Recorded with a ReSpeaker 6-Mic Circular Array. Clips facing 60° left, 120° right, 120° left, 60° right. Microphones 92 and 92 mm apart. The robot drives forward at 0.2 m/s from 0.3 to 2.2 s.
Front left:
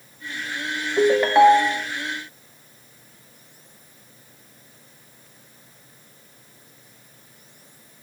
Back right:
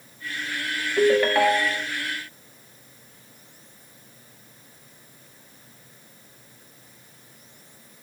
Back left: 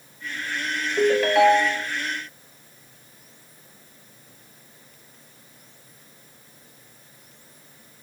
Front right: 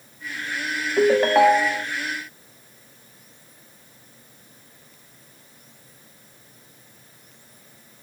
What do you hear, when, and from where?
1.0 s a ringtone: 10° right, 0.9 m; by 1.9 s 15° right, 0.7 m